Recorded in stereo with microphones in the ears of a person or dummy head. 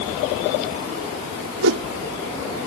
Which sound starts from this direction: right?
A whoosh, at 1.6 s.